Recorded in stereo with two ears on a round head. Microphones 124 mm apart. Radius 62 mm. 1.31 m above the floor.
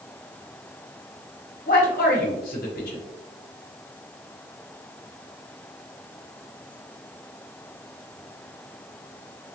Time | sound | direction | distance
1.7 | a man speaking | 70° left (ahead or behind) | 1.1 m